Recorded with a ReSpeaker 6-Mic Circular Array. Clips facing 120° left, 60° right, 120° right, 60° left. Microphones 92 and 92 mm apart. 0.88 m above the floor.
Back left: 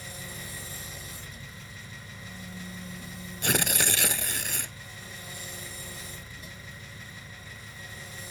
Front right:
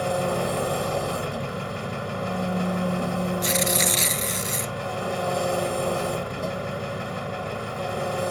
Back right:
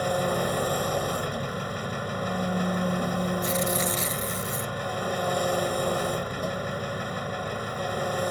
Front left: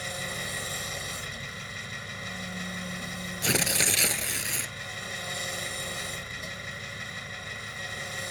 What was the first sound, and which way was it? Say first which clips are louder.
An engine running: front right 20 dB, back right 12 dB; 80° right.